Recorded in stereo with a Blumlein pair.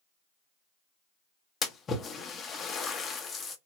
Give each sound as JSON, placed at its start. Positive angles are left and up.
{"t": 1.6, "sound": "a splash", "azimuth_deg": 20, "distance_m": 0.7}